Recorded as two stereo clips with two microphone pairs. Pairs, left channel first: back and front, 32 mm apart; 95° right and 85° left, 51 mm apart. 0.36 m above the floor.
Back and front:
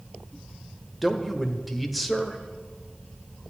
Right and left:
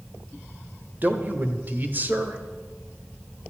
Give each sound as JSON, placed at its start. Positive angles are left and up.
{"t": 1.0, "sound": "a man speaking", "azimuth_deg": 85, "distance_m": 1.2}